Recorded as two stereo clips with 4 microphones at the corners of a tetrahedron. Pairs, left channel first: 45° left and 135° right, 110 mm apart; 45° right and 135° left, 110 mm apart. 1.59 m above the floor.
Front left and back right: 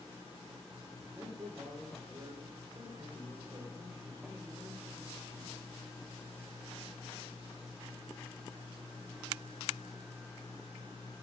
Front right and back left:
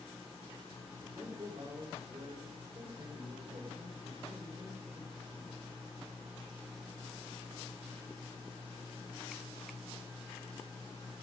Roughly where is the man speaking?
Behind.